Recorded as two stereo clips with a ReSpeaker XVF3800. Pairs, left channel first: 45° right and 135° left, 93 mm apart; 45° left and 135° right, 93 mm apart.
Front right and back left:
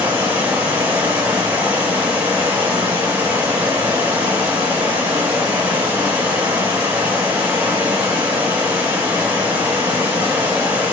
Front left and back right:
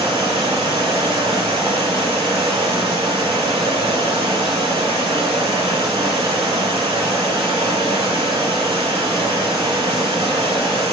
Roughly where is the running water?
Behind right.